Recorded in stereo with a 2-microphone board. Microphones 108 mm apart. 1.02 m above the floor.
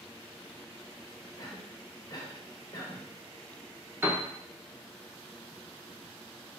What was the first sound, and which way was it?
A cough, 35° left (ahead or behind).